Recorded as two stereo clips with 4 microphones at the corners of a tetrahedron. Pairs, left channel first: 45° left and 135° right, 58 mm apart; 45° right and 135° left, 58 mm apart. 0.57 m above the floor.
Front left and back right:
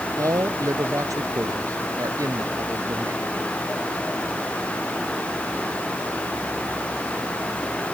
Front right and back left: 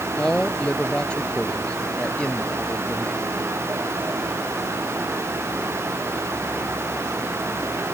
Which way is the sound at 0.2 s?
120° right.